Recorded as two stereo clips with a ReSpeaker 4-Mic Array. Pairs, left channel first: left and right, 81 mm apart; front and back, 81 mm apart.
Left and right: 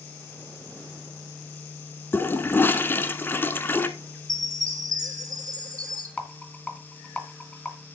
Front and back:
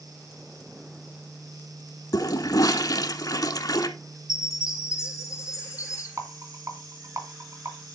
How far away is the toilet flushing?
About 1.0 m.